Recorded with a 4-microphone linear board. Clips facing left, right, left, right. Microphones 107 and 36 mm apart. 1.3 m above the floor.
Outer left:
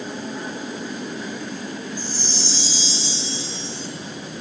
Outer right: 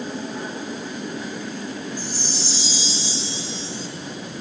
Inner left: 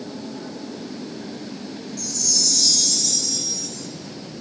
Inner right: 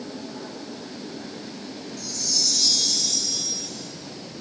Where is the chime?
15° right (ahead or behind), 2.5 m.